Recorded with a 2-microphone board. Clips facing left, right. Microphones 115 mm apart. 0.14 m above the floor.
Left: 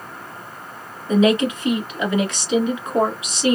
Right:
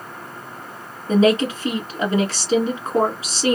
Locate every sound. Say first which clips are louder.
1.1 s a woman speaking: even; 35° right (ahead or behind), 1.2 m